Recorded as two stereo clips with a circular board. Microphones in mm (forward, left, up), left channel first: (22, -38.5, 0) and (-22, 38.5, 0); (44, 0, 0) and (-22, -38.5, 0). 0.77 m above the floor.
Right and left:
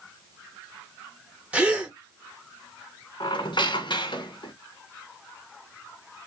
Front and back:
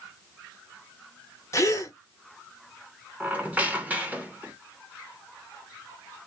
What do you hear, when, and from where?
1.5 s a gasp: 50° left, 0.8 m
3.2 s a squeak: 80° right, 0.8 m